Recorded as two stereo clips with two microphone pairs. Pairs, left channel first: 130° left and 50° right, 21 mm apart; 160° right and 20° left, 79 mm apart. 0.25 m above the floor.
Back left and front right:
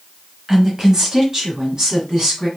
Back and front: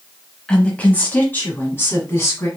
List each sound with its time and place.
0.5 s a woman speaking: 90° right, 1.0 m; by 2.5 s 105° right, 1.8 m